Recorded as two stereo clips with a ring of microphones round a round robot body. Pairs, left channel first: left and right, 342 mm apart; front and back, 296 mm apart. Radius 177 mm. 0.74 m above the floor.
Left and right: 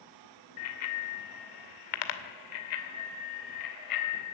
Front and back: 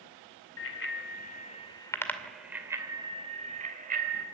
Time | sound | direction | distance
0.6 | a bicycle bell | 45° left | 2 m